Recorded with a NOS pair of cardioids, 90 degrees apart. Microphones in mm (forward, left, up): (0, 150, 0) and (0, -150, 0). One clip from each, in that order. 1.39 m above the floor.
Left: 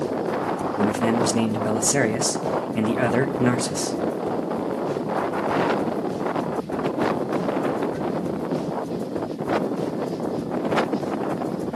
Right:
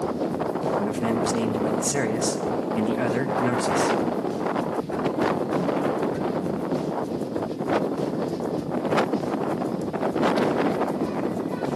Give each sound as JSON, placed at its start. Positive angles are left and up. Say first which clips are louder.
{"t": 0.8, "sound": "a man speaking", "louder": "left 3 dB", "azimuth_deg": 30, "distance_m": 1.7}